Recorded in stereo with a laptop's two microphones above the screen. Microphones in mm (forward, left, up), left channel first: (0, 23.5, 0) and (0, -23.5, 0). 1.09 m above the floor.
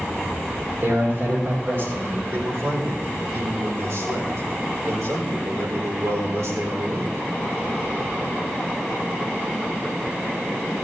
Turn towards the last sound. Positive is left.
turn(degrees=-80)